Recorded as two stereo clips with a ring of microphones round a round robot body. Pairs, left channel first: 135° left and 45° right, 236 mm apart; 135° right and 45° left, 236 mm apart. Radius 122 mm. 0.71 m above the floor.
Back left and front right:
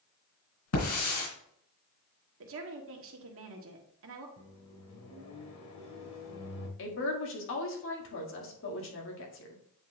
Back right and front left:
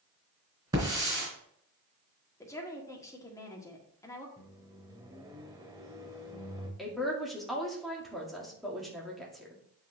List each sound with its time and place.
0.7 s a hiss: 120° left, 3 m
2.4 s a woman speaking: 60° right, 1.6 m
4.4 s a microwave: 120° left, 2 m
6.8 s a woman speaking: 135° left, 1.9 m